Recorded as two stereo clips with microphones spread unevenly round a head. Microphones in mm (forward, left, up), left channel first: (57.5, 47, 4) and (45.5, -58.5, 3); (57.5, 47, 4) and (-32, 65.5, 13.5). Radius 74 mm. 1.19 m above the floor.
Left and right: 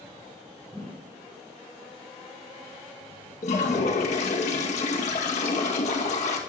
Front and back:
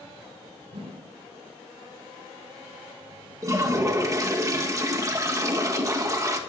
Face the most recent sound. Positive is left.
turn(degrees=115)